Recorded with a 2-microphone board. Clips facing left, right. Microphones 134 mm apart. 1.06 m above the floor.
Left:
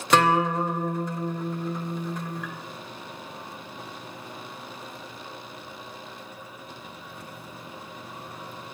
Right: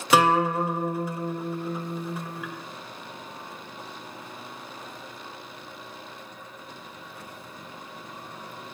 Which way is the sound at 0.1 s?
5° right (ahead or behind).